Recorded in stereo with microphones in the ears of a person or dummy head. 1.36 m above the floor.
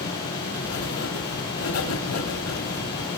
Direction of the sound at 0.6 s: 85° left.